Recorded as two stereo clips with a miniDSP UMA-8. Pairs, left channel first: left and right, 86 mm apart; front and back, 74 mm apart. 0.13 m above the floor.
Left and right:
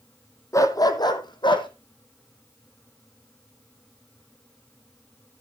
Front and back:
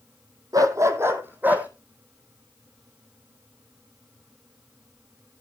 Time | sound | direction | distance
0.5 | a dog barking | 140° left | 1.4 m